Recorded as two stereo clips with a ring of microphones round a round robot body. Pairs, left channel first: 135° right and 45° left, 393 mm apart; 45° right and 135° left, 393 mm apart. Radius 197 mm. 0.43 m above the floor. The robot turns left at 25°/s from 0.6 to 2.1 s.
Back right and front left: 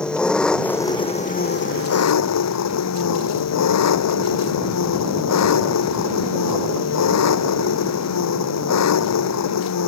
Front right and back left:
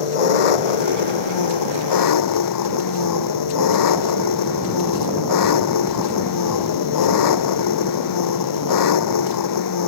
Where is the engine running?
45° right; by 9.9 s 85° right.